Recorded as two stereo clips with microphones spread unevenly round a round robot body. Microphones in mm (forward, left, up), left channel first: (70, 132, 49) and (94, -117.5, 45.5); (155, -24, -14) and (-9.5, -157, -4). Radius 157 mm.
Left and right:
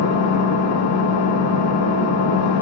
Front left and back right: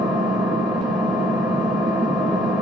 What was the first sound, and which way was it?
An engine running, 130° left.